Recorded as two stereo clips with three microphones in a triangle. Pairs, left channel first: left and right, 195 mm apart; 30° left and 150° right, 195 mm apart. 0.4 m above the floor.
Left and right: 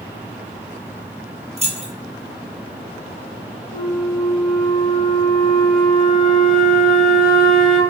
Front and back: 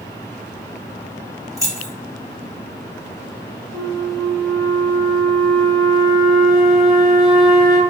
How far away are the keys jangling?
About 0.5 m.